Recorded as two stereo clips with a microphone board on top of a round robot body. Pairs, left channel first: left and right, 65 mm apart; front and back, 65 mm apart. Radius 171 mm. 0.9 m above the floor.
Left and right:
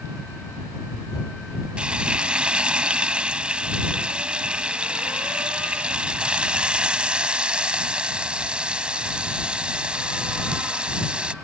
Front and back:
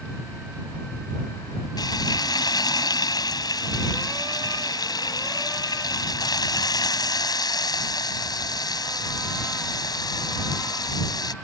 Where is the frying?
15° right.